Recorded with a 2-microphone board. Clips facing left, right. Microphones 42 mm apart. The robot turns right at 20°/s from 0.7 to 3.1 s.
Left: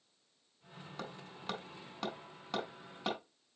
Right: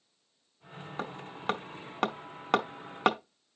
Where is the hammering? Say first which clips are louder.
Right 8 dB; 35° right (ahead or behind), 0.8 m; by 3.5 s 70° right (ahead or behind), 0.8 m.